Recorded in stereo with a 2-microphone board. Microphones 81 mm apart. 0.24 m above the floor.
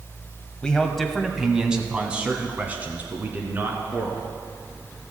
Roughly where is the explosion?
No explosion in this recording.